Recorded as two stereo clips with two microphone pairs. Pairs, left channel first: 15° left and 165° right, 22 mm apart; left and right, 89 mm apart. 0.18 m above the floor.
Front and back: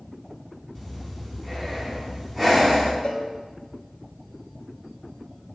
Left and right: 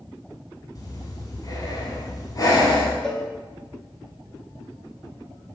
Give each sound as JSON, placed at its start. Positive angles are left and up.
{"t": 0.8, "sound": "breathing", "azimuth_deg": 90, "distance_m": 1.2}
{"t": 3.0, "sound": "a cowbell", "azimuth_deg": 10, "distance_m": 0.6}